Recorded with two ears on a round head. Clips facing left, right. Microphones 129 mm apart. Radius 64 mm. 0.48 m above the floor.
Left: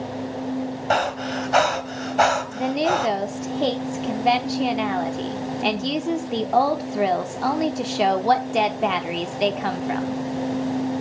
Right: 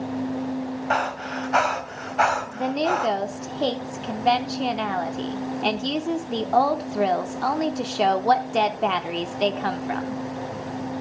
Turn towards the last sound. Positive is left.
turn(degrees=10)  # may be behind; listen again after turning